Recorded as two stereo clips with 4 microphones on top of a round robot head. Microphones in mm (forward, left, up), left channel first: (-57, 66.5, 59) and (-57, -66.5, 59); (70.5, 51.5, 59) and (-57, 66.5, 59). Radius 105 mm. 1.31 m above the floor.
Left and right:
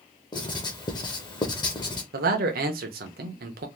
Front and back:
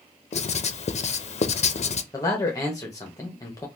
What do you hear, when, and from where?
0.3 s writing: 30° left, 0.5 m
2.1 s a man speaking: 80° right, 0.7 m